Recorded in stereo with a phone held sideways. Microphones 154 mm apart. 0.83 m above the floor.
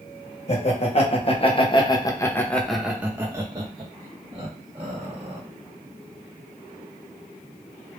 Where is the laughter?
45° left (ahead or behind), 1.3 m; by 5.4 s 45° right (ahead or behind), 1.5 m.